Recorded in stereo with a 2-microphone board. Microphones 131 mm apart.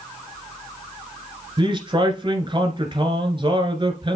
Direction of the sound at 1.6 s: 40° right (ahead or behind).